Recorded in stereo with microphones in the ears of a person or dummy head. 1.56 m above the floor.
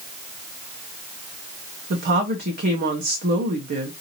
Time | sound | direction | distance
1.9 | a woman speaking | 50° right (ahead or behind) | 0.7 m